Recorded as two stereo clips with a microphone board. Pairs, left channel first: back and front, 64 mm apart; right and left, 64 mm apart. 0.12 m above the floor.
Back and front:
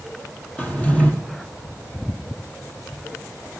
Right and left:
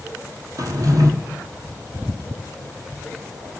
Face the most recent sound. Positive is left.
turn(degrees=110)